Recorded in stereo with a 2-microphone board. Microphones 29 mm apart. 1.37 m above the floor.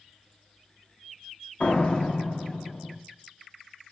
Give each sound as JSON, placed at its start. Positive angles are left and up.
{"t": 1.6, "sound": "a door slam", "side_deg": 45, "distance_m": 1.6}